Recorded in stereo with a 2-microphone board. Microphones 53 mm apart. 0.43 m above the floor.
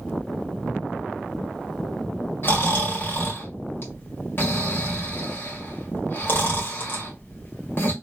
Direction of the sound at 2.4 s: 45° left (ahead or behind).